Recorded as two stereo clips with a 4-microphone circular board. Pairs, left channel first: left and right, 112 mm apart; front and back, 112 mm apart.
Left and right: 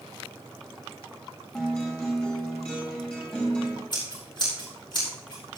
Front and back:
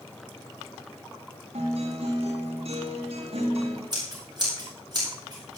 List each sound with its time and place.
1.5 s a guitar: 170° left, 7.5 m
3.9 s scissors: 130° left, 7.5 m